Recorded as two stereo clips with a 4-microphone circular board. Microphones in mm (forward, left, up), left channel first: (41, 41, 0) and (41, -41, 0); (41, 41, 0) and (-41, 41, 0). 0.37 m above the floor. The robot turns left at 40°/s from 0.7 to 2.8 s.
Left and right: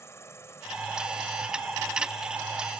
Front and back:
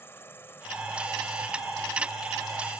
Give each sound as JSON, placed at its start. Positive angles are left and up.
{"t": 0.0, "sound": "an insect", "azimuth_deg": 50}